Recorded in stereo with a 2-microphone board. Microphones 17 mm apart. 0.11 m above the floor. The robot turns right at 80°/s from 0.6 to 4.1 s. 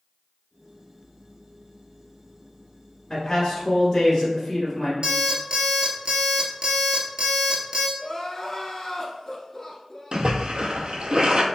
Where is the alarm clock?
55° right (ahead or behind), 0.9 m.